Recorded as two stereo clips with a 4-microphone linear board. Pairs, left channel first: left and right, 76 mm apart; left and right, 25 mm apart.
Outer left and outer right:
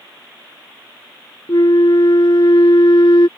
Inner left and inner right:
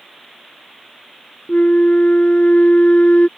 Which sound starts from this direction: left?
A flute, at 1.5 s.